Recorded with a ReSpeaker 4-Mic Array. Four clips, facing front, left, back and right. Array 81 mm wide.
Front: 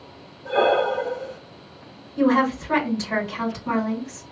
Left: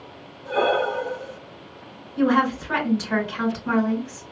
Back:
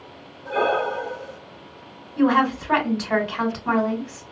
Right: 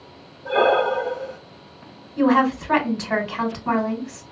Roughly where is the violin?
No violin in this recording.